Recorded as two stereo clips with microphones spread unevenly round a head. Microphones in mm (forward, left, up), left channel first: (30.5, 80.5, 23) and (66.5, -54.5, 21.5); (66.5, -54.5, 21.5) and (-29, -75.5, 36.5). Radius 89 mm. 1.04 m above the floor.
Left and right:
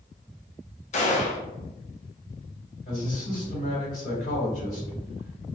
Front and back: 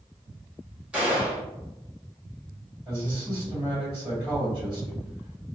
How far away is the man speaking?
About 1.6 m.